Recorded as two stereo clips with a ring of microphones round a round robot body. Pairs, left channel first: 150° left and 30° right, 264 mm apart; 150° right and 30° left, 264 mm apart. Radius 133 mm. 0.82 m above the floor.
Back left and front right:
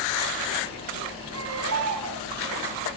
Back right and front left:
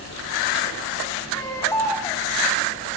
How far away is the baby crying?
About 5 m.